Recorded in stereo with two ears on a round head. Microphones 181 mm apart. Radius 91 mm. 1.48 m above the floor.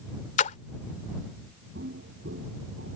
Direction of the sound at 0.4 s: 40° left (ahead or behind).